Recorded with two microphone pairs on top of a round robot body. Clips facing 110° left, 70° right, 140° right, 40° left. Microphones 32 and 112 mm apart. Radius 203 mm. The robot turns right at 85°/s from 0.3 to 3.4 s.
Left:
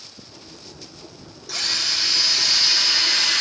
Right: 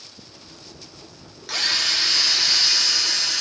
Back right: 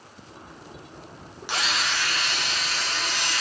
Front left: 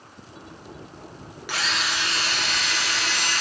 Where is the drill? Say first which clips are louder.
Right 2 dB, even; 75° right, 0.8 m; by 3.4 s 85° left, 0.8 m.